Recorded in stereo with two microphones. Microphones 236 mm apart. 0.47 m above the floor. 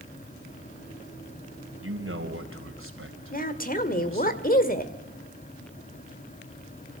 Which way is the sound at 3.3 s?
40° left (ahead or behind).